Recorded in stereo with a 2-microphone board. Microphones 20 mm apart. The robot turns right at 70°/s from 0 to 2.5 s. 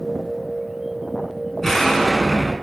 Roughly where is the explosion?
Left.